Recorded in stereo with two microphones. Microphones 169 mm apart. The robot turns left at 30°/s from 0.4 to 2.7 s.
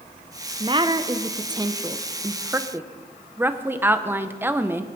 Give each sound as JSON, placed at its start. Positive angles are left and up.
{"t": 0.6, "sound": "a woman speaking", "side_deg": -30, "distance_m": 0.8}